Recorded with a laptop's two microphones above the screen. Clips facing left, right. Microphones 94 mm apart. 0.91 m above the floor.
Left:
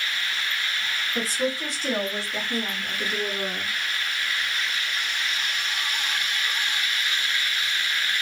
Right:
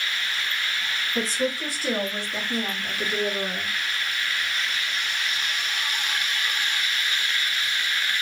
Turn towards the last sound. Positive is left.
turn(degrees=-50)  # may be behind; listen again after turning